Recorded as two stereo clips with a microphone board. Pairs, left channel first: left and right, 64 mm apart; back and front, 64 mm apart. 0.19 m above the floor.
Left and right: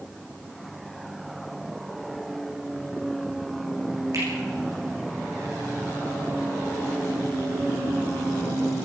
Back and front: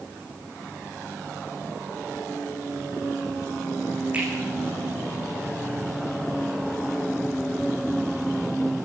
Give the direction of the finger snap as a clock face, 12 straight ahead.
2 o'clock.